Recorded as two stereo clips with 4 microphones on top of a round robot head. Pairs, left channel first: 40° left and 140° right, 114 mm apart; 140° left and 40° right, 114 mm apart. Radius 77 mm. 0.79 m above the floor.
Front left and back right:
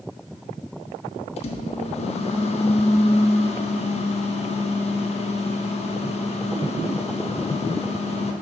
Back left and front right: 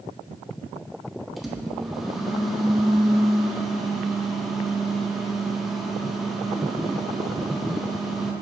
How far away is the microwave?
About 0.7 m.